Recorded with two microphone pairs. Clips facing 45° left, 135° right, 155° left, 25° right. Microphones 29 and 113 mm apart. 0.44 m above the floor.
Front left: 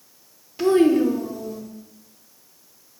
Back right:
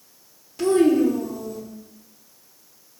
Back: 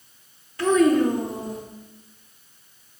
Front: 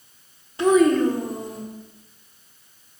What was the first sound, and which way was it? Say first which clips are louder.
A child speaking: front left 1 dB, front 1 dB; 15° left.